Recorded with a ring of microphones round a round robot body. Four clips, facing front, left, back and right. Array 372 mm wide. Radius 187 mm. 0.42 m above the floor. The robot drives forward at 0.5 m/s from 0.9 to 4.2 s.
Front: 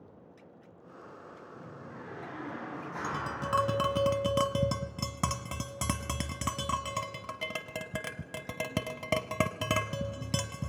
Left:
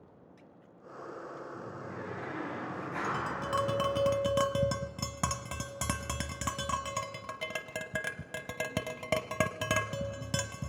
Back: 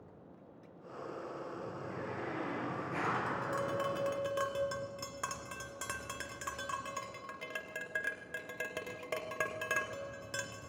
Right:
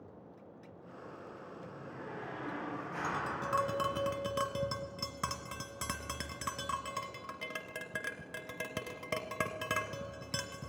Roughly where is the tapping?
Ahead.